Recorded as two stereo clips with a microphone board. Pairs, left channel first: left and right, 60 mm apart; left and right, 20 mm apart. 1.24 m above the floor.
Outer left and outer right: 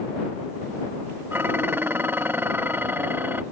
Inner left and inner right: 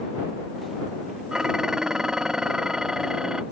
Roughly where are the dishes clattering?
Right.